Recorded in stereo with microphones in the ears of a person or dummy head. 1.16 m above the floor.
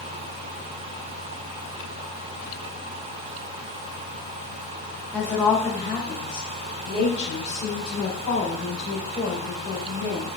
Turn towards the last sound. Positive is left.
turn(degrees=50)  # may be behind; listen again after turning